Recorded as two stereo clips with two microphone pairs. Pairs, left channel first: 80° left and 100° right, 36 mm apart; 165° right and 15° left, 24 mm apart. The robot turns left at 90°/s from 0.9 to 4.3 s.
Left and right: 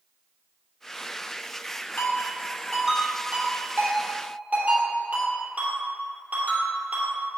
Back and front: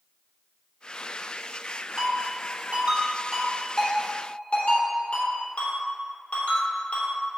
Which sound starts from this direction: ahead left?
A ringtone, at 2.0 s.